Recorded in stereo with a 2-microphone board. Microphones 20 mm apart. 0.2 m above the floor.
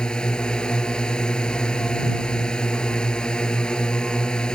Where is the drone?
40° left (ahead or behind).